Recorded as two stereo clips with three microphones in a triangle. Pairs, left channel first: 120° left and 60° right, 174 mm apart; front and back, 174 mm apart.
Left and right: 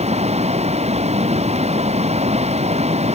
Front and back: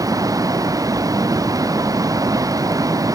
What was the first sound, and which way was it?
Running water, 110° right.